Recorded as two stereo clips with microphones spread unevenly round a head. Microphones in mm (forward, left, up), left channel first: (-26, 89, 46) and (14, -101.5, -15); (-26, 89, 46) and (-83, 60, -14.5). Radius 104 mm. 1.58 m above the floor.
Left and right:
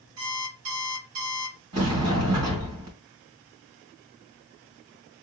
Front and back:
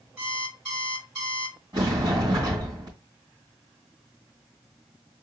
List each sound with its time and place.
0.2 s an alarm clock: 50° right, 3 m
1.7 s a sliding door: 60° right, 2.5 m